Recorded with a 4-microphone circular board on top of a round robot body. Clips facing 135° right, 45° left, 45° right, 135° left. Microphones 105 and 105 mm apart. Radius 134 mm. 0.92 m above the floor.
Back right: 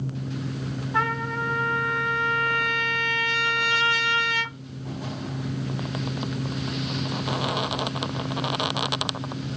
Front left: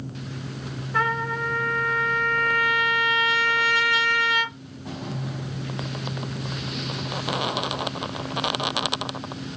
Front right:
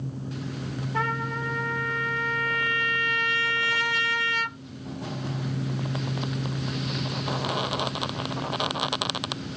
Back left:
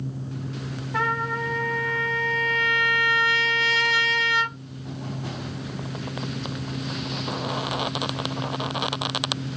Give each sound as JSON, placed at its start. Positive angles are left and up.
{"t": 0.9, "sound": "a trumpet", "azimuth_deg": 155, "distance_m": 1.2}